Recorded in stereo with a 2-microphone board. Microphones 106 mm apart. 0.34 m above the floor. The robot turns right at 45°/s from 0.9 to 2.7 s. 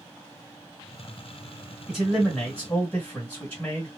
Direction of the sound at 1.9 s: 10° right.